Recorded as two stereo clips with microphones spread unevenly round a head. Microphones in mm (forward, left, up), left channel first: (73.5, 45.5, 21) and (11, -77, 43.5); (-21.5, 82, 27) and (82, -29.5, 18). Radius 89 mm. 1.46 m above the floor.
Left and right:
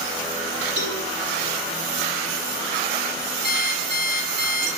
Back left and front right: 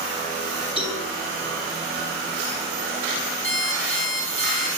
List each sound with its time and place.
0.8 s a cowbell: 165° right, 4.5 m
3.4 s an alarm clock: 175° right, 9 m